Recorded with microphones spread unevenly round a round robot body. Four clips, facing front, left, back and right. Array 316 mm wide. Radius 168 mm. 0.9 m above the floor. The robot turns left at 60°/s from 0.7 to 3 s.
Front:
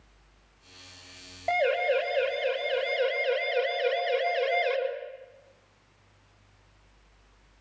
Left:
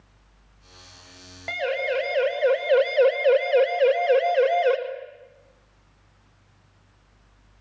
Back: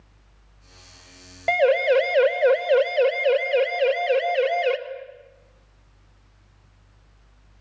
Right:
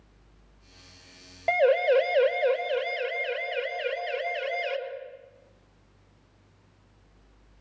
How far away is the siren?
About 5.5 m.